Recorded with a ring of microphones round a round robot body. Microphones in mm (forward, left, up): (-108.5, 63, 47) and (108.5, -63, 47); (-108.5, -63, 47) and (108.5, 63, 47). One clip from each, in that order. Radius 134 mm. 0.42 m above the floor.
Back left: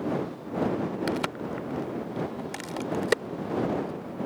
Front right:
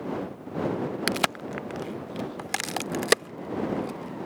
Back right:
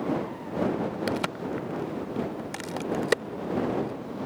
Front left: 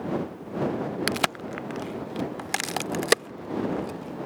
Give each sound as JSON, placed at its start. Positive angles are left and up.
{"t": 1.1, "sound": "a crack", "azimuth_deg": 0}